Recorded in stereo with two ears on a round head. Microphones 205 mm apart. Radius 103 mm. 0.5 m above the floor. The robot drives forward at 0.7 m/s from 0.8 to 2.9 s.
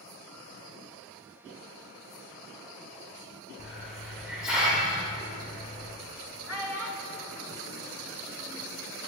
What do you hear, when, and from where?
3.6 s a hiss: 5° right (ahead or behind), 1.2 m
6.5 s a child speaking: 10° right (ahead or behind), 0.7 m